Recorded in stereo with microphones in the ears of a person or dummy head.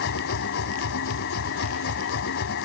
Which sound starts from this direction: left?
A machine running, at 0.0 s.